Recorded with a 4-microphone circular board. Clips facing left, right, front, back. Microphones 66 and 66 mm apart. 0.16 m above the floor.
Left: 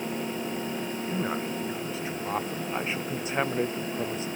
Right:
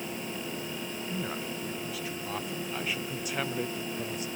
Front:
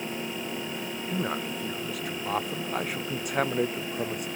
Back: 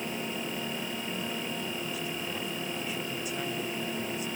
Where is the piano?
No piano in this recording.